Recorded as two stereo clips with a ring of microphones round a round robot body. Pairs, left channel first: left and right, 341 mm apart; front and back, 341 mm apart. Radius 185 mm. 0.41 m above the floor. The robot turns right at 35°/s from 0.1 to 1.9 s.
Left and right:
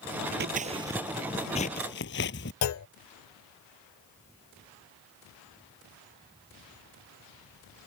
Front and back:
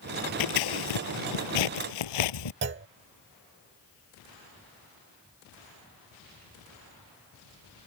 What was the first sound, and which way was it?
Scissors, 25° right.